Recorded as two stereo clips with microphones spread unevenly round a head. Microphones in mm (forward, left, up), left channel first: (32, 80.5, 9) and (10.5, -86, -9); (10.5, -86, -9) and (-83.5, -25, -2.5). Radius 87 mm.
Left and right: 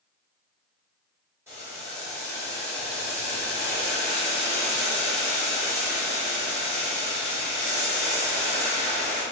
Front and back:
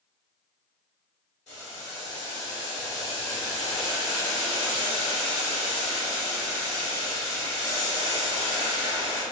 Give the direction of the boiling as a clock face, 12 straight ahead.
1 o'clock.